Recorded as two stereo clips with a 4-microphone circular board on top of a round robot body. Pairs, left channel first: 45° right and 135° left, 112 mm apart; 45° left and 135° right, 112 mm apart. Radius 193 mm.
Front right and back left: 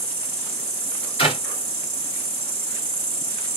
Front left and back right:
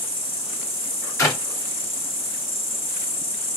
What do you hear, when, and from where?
0.0 s an insect: 35° left, 2.5 m
1.2 s a clap: 15° right, 2 m